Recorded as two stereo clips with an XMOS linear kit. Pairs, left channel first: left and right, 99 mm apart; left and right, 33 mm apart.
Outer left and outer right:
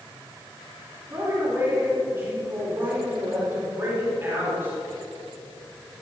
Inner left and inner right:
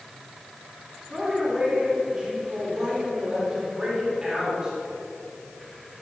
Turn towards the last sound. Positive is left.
turn(degrees=-25)  # may be behind; listen again after turning